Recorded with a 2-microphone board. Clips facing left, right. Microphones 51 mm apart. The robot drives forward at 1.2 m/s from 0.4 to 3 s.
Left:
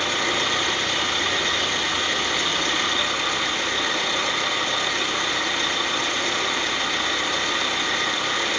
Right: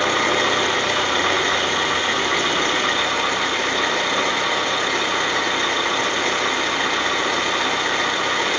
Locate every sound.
0.0 s an engine running: 80° right, 4.5 m; by 8.6 s 50° right (ahead or behind), 6 m